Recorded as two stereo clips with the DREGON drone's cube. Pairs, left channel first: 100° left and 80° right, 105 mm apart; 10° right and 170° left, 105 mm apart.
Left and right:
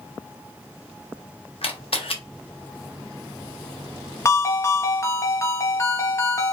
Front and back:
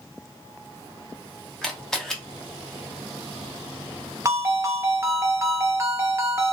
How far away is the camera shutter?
About 0.6 m.